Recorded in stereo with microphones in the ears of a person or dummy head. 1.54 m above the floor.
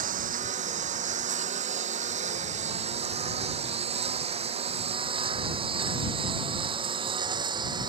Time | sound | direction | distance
0.0 | a lawn mower | 40° right (ahead or behind) | ?